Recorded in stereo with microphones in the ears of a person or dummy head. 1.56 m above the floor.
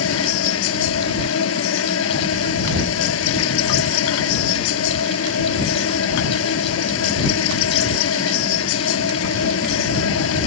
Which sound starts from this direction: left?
An insect, at 0.0 s.